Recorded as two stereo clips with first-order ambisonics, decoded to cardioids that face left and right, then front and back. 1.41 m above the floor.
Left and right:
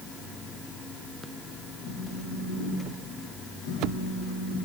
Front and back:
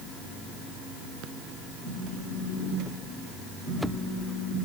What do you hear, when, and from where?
1.8 s a phone buzzing: 85° left, 8 m